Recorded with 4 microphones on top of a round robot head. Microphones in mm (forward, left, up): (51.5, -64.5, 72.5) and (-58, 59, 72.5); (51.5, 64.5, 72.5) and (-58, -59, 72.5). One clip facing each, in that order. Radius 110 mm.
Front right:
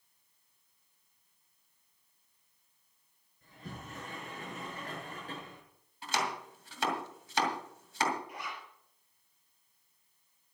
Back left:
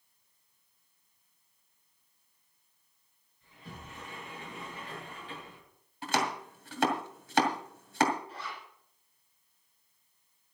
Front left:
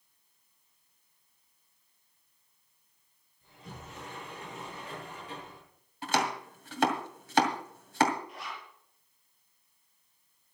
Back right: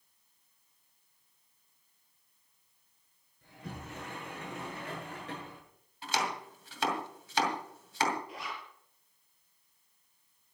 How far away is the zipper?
About 6.5 m.